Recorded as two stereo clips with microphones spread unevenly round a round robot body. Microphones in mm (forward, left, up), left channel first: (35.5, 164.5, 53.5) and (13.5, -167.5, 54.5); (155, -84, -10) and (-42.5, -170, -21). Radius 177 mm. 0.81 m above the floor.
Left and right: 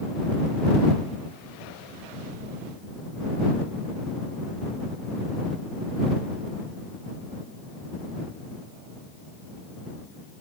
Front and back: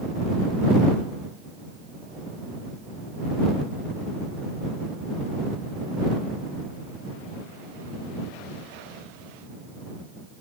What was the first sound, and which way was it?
Only background noise.